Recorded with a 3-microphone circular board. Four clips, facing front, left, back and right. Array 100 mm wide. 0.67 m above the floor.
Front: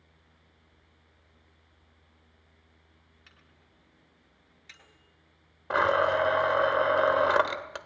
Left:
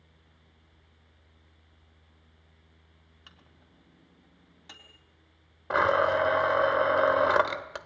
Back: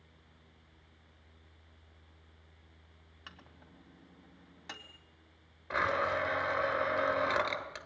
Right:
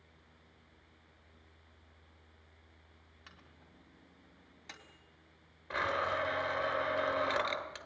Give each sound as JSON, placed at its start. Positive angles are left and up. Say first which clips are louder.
{"t": 3.3, "sound": "a microwave", "louder": "even, back 9 dB", "azimuth_deg": 175, "distance_m": 3.0}
{"t": 5.7, "sound": "a blender", "louder": "left 10 dB, front 8 dB", "azimuth_deg": 50, "distance_m": 1.9}